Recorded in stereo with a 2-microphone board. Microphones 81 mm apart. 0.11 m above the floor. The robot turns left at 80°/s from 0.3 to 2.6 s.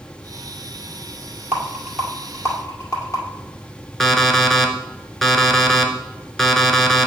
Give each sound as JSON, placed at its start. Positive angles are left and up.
{"t": 1.5, "sound": "a rattle", "side_deg": -25, "distance_m": 1.9}
{"t": 4.0, "sound": "an alarm clock", "side_deg": 5, "distance_m": 0.8}